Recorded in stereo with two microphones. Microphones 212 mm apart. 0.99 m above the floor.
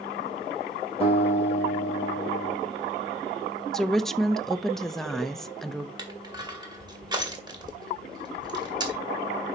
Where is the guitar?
30° left (ahead or behind), 4 m.